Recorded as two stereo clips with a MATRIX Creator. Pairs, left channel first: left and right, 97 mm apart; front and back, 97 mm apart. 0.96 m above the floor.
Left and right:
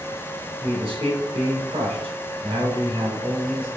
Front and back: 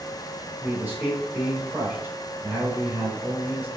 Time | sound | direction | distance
0.6 | a man speaking | 105° right | 3 m